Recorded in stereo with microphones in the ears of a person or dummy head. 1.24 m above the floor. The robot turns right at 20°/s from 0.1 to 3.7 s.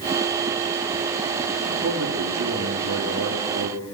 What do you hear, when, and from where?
1.6 s a man speaking: 120° right, 2 m; by 3.8 s 80° right, 2 m